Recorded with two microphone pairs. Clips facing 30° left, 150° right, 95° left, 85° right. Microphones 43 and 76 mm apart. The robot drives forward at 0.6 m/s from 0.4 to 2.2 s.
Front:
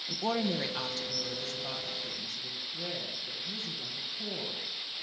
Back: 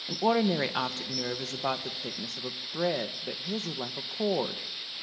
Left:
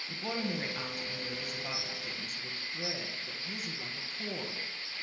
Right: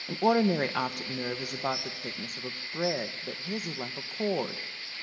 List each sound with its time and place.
0.1 s a woman speaking: 80° right, 1.5 m; by 4.6 s 120° right, 1.7 m